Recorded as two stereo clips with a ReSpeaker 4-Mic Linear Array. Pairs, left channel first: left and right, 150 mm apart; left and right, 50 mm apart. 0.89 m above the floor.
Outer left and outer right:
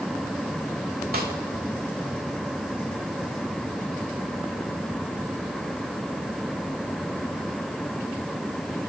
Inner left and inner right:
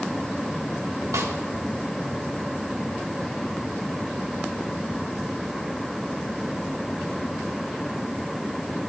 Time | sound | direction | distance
1.1 | a snare drum | 70° right (ahead or behind) | 2.5 m